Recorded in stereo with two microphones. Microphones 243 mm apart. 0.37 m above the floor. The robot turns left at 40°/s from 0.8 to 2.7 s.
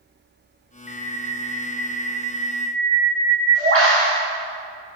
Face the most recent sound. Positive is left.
turn(degrees=-115)